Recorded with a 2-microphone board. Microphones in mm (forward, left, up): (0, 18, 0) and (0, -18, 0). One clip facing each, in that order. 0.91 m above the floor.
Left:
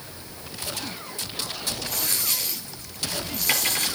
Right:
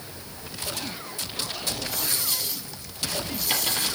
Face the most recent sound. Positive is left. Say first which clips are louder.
# left 1 dB
turn(degrees=50)  # may be behind; listen again after turning